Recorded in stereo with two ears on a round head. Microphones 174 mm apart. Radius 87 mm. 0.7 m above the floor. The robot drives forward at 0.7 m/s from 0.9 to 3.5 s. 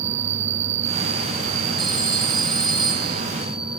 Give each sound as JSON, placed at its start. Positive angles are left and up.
{"t": 0.0, "sound": "an insect", "side_deg": -60}
{"t": 1.8, "sound": "a phone ringing", "side_deg": -25}